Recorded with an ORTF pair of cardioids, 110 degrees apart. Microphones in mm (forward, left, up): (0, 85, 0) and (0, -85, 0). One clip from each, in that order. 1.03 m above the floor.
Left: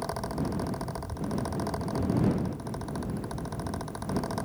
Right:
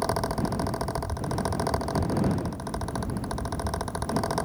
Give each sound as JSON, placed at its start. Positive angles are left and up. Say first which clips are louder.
{"t": 0.0, "sound": "a fan", "louder": "right 6 dB", "azimuth_deg": -35}